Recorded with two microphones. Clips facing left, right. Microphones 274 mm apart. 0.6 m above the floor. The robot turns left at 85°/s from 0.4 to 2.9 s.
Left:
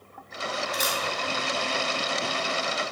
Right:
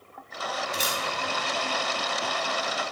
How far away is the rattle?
No rattle in this recording.